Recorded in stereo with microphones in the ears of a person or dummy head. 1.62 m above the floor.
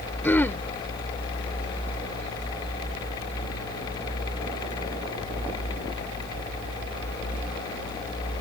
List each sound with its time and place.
0.2 s throat clearing: 10° left (ahead or behind)